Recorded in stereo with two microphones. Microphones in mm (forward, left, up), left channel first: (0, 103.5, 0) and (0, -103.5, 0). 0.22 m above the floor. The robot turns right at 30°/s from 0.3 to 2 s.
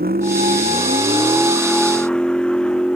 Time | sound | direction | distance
0.0 | a vehicle | 45° right | ?